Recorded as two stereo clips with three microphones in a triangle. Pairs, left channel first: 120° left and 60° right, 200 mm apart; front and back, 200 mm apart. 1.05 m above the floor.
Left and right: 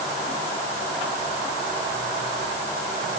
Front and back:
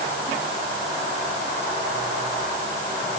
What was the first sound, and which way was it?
Only background noise.